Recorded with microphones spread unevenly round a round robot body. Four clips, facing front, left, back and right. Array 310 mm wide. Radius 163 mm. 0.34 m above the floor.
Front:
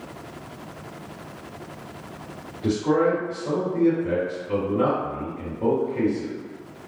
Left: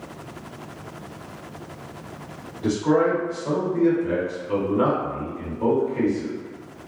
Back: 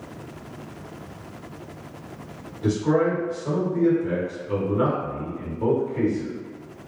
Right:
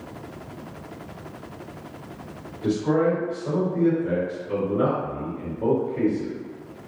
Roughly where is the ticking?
No ticking in this recording.